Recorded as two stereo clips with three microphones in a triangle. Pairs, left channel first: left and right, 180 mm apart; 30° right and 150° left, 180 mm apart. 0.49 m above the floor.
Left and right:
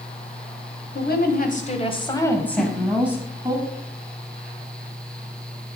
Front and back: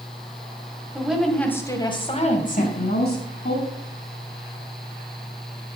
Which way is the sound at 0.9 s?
70° left.